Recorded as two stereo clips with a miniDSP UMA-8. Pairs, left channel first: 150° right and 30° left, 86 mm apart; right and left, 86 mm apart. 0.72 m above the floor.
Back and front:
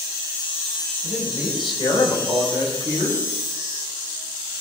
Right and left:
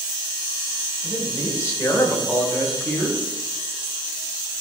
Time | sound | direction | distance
1.0 | a man speaking | 135° right | 3 m